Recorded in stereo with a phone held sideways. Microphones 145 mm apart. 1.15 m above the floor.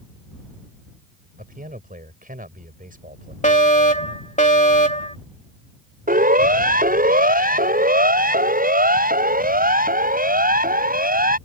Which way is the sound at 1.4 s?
75° right (ahead or behind).